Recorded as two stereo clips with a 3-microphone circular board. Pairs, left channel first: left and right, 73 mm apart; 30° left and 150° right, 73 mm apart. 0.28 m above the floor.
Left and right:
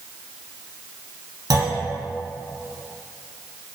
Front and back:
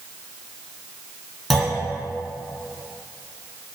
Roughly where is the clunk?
Ahead right.